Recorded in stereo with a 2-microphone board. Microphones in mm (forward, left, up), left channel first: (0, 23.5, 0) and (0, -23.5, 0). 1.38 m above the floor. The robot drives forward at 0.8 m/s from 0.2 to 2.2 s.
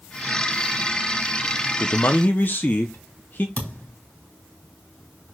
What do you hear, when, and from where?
1.8 s a man speaking: 60° left (ahead or behind), 0.7 m; by 3.5 s 40° left (ahead or behind), 0.9 m
3.6 s a thud: 40° left (ahead or behind), 3 m